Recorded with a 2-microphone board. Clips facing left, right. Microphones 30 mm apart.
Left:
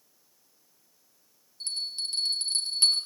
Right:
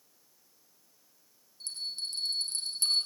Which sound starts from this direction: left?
A bell, at 1.6 s.